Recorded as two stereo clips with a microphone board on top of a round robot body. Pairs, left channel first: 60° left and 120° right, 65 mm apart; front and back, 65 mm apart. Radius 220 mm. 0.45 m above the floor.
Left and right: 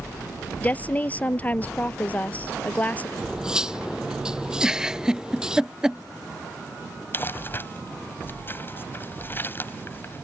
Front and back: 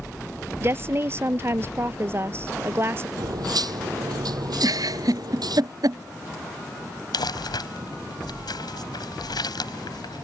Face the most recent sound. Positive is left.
turn(degrees=0)